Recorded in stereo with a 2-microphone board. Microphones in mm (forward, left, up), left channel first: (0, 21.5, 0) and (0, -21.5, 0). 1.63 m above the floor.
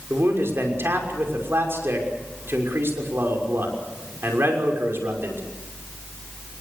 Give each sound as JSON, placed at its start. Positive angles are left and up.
{"t": 0.1, "sound": "a man speaking", "side_deg": -65, "distance_m": 6.0}